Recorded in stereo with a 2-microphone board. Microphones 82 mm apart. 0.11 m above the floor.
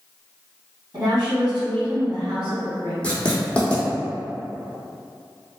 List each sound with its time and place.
0.9 s a woman speaking: 45° right (ahead or behind), 1.8 m
3.0 s writing: 15° left (ahead or behind), 0.9 m